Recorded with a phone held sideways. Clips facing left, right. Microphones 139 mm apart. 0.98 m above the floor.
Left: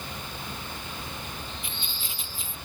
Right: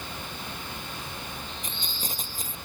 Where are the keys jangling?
40° right (ahead or behind).